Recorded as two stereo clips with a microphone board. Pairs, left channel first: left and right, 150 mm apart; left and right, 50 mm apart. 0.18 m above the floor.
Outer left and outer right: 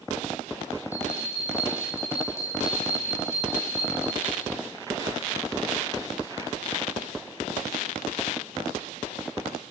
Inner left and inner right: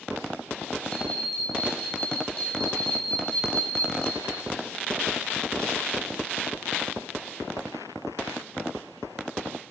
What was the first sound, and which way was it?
A bell, 20° left (ahead or behind).